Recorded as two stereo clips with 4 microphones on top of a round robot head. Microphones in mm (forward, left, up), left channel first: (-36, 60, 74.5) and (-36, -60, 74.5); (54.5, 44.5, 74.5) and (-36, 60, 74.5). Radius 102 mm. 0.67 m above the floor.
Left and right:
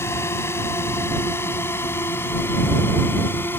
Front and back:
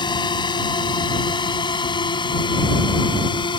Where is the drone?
20° left; by 3.6 s 15° left.